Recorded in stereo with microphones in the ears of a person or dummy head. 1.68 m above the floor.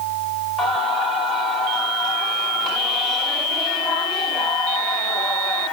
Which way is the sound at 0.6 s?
5° left (ahead or behind).